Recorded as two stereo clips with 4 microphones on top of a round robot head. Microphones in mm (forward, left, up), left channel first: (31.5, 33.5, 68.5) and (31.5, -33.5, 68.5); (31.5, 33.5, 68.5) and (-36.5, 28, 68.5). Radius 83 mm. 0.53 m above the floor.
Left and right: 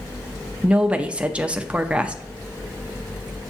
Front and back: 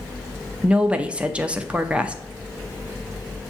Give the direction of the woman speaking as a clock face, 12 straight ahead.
4 o'clock.